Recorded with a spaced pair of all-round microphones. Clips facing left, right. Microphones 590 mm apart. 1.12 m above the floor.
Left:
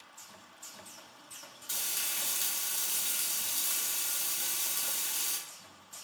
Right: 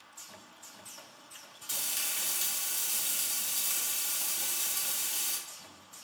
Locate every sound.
1.7 s frying: 55° right (ahead or behind), 1.0 m